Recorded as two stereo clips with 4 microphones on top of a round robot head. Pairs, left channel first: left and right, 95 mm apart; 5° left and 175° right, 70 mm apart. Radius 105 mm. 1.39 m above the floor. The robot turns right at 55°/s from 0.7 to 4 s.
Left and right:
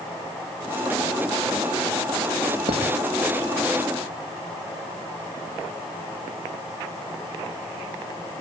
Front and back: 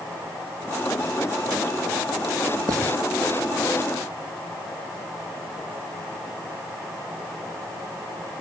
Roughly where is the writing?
Behind right.